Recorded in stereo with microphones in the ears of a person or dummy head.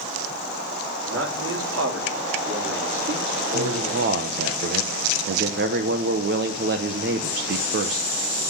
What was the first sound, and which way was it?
A man speaking, 85° right.